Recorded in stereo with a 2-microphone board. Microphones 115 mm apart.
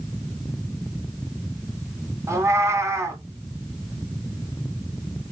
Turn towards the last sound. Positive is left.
turn(degrees=-25)  # may be behind; listen again after turning